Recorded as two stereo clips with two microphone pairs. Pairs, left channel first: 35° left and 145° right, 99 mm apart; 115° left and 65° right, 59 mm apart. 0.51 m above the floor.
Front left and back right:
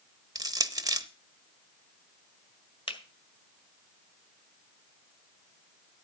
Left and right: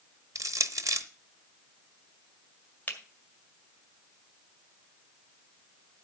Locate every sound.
0.3 s crushing: 95° right, 0.8 m
2.9 s a finger snap: 55° left, 1.8 m